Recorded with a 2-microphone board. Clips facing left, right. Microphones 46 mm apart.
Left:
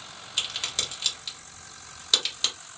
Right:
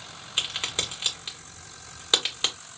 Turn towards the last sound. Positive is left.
turn(degrees=-25)  # may be behind; listen again after turning